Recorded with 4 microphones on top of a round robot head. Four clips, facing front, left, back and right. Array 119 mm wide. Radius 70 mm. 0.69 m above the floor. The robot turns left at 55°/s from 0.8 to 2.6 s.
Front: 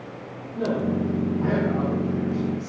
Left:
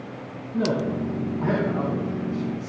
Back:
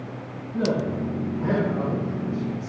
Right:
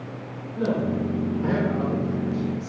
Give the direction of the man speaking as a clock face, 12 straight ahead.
9 o'clock.